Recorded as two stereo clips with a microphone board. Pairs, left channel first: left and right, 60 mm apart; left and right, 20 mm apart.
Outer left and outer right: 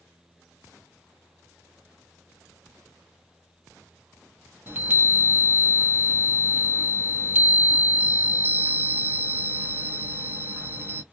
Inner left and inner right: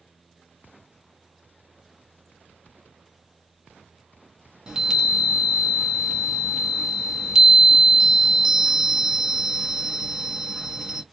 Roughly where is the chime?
Right.